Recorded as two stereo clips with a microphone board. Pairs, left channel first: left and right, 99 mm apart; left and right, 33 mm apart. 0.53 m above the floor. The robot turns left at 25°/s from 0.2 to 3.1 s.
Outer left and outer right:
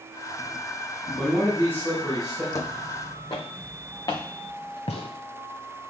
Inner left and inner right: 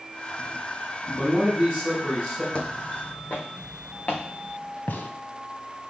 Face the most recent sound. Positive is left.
turn(degrees=75)  # may be behind; listen again after turning